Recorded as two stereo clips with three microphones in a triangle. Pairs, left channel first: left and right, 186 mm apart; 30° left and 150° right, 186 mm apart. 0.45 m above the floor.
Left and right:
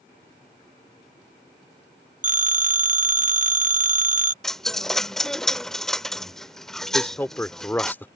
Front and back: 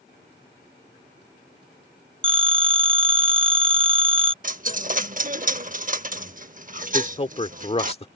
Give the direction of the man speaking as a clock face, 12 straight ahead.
11 o'clock.